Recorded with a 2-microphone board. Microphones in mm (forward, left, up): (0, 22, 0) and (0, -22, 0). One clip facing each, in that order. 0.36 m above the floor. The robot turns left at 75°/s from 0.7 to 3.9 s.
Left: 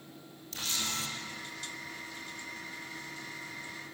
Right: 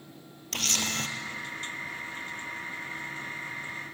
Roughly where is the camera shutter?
Right.